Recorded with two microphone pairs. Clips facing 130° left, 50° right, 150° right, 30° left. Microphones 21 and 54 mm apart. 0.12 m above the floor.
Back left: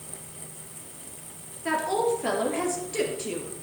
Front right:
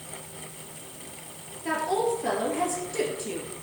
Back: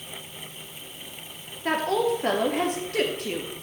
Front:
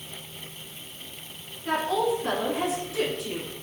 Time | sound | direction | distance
1.6 | a woman speaking | 160° right | 2.5 m